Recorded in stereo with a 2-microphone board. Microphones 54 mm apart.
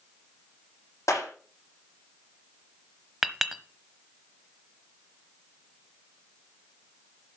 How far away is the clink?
About 1.0 m.